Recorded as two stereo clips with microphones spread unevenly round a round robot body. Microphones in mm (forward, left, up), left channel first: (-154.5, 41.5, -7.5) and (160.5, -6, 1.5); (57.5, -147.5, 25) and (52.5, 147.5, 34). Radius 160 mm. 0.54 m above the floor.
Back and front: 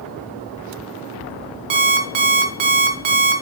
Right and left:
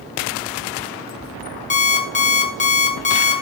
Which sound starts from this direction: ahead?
An alarm clock, at 1.7 s.